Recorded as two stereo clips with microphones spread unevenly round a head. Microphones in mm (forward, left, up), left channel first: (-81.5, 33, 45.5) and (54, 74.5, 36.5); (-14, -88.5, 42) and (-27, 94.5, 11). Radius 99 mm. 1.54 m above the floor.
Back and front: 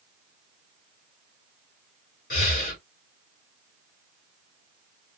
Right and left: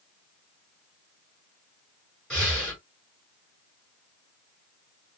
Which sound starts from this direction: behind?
Breathing, at 2.3 s.